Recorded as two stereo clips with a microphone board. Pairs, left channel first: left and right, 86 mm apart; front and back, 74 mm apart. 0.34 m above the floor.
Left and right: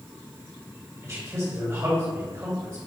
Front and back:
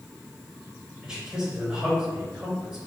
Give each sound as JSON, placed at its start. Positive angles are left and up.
{"t": 1.0, "sound": "a man speaking", "azimuth_deg": -105, "distance_m": 1.5}